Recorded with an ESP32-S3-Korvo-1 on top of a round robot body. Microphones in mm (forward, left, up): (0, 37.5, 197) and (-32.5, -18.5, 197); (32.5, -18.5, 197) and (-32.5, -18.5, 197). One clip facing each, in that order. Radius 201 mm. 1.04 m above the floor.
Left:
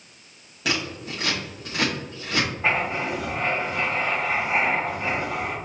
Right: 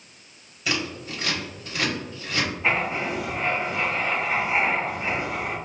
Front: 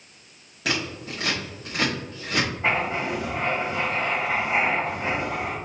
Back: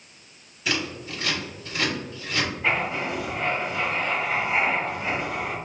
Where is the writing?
35° left, 1.9 m.